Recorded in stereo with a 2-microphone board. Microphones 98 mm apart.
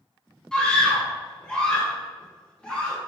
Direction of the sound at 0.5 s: 10° left (ahead or behind).